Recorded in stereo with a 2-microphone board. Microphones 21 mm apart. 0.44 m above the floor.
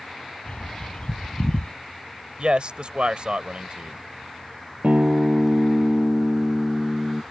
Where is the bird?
60° left (ahead or behind).